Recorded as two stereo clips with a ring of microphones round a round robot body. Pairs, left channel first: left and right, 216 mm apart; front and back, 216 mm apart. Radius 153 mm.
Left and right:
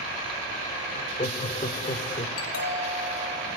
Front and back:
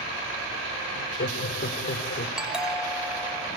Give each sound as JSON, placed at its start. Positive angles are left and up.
{"t": 0.9, "sound": "laughter", "azimuth_deg": 35, "distance_m": 3.5}
{"t": 2.4, "sound": "a doorbell", "azimuth_deg": 95, "distance_m": 5.5}